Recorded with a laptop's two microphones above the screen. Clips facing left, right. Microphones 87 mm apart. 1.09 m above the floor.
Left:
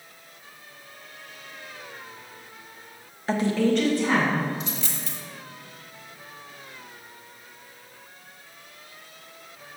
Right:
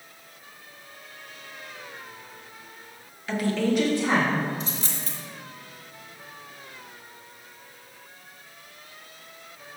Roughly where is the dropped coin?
Right.